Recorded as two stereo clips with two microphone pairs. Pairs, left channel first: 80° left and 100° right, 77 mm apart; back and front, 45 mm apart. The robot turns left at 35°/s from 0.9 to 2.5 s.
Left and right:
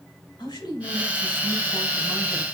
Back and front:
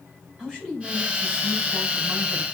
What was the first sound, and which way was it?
A woman speaking, 80° left.